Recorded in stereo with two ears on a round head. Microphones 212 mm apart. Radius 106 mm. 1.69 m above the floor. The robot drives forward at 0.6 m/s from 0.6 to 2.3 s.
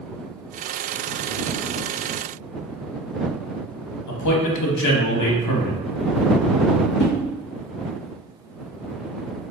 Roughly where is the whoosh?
Left.